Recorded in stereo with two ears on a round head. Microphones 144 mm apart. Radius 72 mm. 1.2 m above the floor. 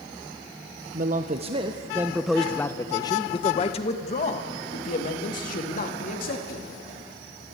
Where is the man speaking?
50° right (ahead or behind), 1.1 m; by 6.7 s 55° left (ahead or behind), 3 m.